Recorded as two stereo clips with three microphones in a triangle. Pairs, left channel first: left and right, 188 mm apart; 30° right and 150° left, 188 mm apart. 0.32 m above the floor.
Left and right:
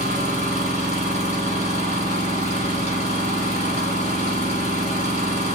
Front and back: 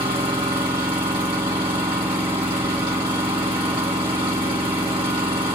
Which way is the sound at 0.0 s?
105° left.